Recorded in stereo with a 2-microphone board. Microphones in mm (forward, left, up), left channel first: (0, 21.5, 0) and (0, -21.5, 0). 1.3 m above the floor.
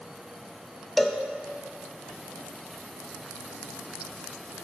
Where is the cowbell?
Centre (ahead or behind), 0.6 m.